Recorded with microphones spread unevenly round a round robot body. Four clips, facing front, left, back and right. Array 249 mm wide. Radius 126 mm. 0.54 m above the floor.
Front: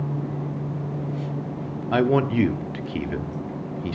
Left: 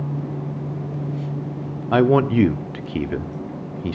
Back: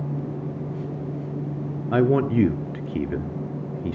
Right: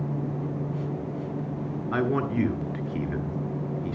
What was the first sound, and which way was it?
A man speaking, 115° left.